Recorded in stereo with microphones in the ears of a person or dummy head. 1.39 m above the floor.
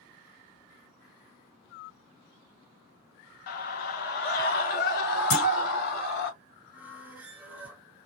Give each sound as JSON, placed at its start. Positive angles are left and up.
{"t": 3.5, "sound": "a scream", "side_deg": 55, "distance_m": 0.9}
{"t": 5.3, "sound": "a clunk", "side_deg": 65, "distance_m": 2.5}
{"t": 6.7, "sound": "a squeak", "side_deg": -10, "distance_m": 0.9}